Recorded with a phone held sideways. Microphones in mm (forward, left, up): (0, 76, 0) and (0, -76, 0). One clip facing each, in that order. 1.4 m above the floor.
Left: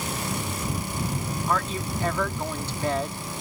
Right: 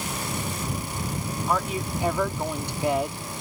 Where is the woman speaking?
15° right (ahead or behind).